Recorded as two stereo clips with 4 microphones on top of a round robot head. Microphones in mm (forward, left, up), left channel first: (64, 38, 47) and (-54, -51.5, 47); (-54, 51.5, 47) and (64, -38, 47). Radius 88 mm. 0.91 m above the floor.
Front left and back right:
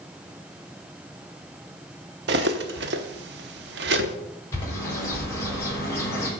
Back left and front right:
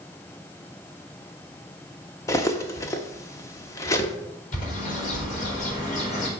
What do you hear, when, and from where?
2.3 s cutlery clinking: 145° right, 0.9 m
4.5 s a bird: 110° left, 3.5 m